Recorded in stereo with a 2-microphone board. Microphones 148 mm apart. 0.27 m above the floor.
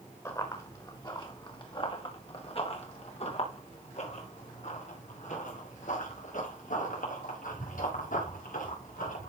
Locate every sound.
0.2 s running footsteps: 25° left (ahead or behind), 3 m; by 9.3 s 75° left (ahead or behind), 6.5 m